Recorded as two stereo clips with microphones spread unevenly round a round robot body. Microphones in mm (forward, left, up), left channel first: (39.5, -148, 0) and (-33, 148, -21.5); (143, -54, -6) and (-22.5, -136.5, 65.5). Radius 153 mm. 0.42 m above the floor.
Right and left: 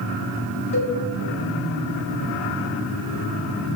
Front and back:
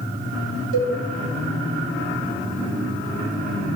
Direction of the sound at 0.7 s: 150° right.